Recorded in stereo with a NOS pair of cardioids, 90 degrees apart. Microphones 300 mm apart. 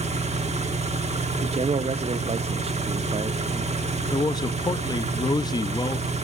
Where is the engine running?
20° right, 1.7 m.